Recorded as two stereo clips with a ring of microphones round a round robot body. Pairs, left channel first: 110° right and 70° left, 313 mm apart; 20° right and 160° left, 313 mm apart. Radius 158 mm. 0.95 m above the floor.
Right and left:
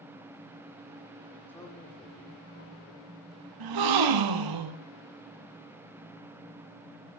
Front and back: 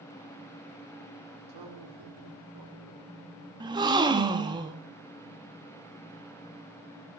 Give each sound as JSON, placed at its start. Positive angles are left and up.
{"t": 1.5, "sound": "a man speaking", "azimuth_deg": 165, "distance_m": 2.0}
{"t": 3.6, "sound": "a gasp", "azimuth_deg": 80, "distance_m": 1.5}